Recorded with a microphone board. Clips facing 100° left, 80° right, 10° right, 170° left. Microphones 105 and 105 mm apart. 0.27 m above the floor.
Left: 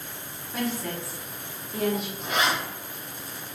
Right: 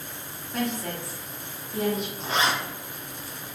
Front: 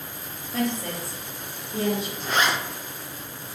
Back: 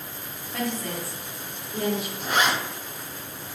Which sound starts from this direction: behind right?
A zipper, at 2.2 s.